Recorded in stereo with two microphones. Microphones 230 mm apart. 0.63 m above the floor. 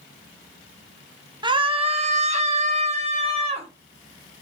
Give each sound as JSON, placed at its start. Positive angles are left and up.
{"t": 1.4, "sound": "a scream", "side_deg": -20, "distance_m": 0.6}